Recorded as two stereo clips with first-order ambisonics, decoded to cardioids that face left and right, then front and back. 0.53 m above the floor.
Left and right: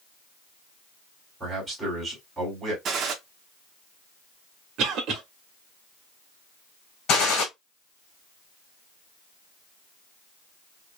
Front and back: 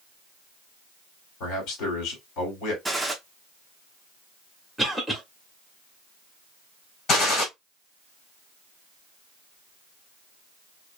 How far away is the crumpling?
No crumpling in this recording.